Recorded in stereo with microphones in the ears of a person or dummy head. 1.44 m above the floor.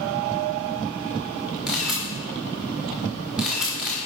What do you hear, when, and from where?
1.7 s a camera shutter: centre (ahead or behind), 2.5 m